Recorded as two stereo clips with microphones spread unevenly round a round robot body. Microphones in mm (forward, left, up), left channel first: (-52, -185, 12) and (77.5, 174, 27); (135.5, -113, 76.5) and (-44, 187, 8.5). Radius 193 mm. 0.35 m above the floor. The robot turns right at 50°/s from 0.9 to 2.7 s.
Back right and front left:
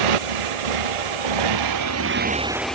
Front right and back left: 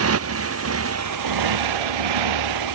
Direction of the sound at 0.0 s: 70° left.